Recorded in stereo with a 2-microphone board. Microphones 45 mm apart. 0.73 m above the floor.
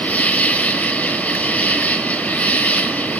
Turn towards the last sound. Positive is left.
turn(degrees=40)  # may be behind; listen again after turning